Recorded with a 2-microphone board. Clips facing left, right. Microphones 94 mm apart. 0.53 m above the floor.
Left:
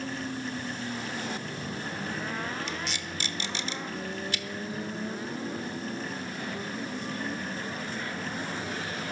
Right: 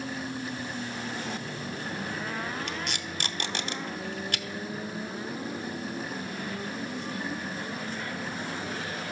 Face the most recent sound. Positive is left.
turn(degrees=-55)  # may be behind; listen again after turning